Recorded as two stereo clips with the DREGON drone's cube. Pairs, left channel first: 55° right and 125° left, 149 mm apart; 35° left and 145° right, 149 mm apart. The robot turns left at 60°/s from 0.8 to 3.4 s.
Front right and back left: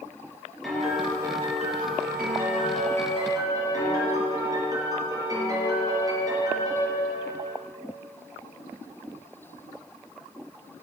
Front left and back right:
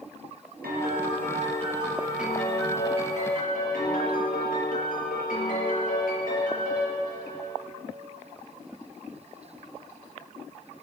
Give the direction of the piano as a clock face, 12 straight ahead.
5 o'clock.